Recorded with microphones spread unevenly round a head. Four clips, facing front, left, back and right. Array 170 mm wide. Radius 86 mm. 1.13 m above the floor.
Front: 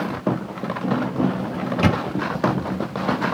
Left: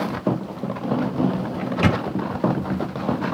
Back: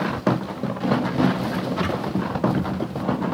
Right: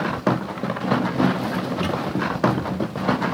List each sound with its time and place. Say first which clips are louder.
1.6 s a microwave: left 3 dB, front 3 dB; 40° left